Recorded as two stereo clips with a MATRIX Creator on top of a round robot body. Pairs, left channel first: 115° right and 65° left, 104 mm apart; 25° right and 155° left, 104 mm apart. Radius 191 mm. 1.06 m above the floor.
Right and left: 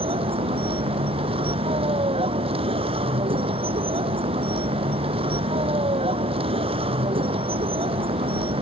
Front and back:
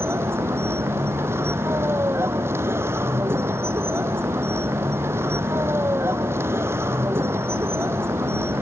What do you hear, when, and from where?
0.0 s a vehicle: 90° left